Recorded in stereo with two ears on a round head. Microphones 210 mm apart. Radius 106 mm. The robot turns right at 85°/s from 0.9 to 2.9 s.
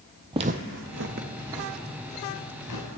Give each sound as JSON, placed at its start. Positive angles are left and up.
{"t": 0.3, "sound": "footsteps", "side_deg": -20, "distance_m": 0.5}